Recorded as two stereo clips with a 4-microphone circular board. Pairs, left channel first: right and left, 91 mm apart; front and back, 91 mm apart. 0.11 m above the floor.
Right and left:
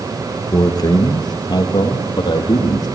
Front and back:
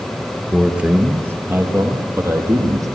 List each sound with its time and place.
0.5 s a man speaking: 95° right, 1.8 m; by 2.9 s 130° right, 4.5 m